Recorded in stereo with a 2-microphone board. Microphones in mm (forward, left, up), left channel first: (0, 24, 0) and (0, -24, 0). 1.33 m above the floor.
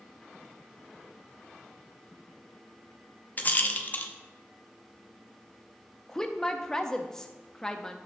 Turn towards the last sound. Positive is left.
turn(degrees=15)  # may be behind; listen again after turning